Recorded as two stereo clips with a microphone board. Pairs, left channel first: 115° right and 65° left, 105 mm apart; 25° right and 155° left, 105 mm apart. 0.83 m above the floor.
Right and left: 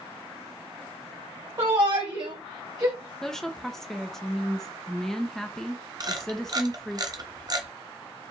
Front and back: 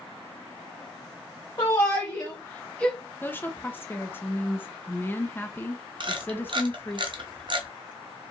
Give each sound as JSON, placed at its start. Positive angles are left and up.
{"t": 1.6, "sound": "a shout", "azimuth_deg": 25, "distance_m": 1.5}
{"t": 3.2, "sound": "a woman speaking", "azimuth_deg": -35, "distance_m": 0.6}
{"t": 6.0, "sound": "a camera shutter", "azimuth_deg": 120, "distance_m": 0.6}